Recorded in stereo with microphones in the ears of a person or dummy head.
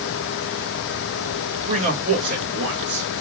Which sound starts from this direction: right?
A man speaking, at 1.6 s.